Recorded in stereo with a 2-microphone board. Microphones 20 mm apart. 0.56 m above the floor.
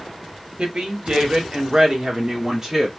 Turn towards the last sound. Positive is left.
turn(degrees=-25)  # may be behind; listen again after turning